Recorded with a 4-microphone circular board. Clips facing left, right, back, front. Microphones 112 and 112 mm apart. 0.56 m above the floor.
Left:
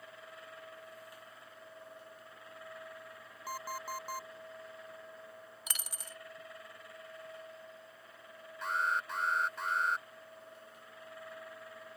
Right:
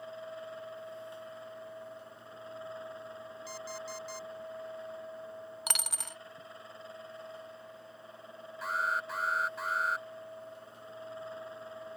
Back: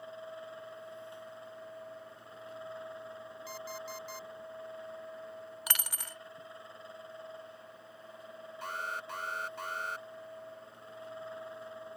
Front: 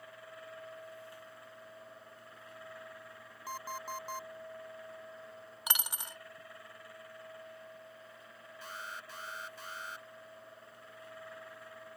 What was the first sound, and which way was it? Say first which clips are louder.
An alarm clock: left 3 dB, front 3 dB; 50° left.